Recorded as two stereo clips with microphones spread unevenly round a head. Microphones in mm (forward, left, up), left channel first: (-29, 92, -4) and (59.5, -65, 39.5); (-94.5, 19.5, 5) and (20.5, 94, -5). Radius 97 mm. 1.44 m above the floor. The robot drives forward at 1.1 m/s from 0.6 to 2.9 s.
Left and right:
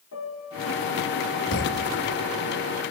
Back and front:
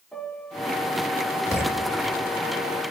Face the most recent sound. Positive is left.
turn(degrees=165)